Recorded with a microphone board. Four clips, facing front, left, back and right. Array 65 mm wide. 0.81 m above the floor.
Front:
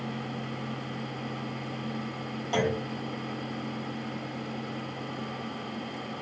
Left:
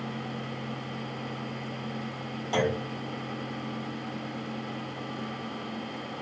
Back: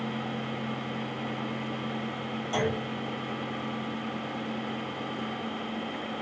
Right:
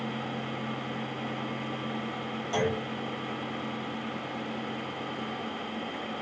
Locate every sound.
2.5 s a clunk: 45° left, 1.4 m